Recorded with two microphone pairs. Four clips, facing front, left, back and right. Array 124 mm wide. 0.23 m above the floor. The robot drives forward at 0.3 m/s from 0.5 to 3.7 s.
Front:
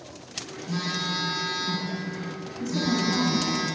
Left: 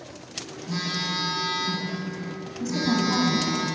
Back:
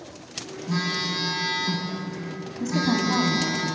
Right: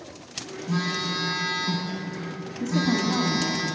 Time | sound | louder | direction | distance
0.7 | a phone buzzing | right 3 dB, back 2 dB | 170° left | 4.5 m
2.6 | a woman speaking | even, back 2 dB | 175° left | 1.3 m